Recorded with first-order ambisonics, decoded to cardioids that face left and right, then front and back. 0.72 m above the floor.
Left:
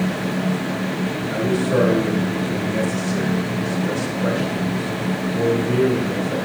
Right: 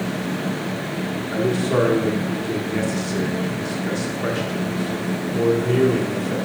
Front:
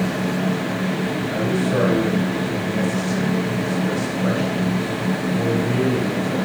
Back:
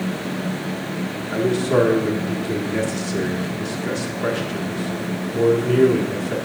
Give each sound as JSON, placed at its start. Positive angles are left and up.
{"t": 1.3, "sound": "a man speaking", "azimuth_deg": -145, "distance_m": 1.6}